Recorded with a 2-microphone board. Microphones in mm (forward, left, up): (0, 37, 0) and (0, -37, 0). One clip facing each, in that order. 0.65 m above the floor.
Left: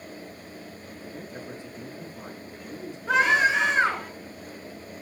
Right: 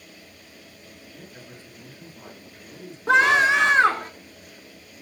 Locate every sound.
1.1 s a man speaking: 20° left (ahead or behind), 7 m
3.1 s a scream: 75° right (ahead or behind), 6 m